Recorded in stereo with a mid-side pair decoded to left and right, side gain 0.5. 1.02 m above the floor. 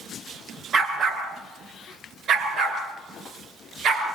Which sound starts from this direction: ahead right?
A dog barking, at 0.7 s.